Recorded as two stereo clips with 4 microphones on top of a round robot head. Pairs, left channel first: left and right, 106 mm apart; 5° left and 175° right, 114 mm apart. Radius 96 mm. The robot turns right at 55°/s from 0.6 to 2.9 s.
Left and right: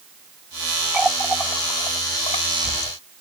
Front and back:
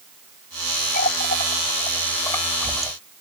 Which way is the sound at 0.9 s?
10° right.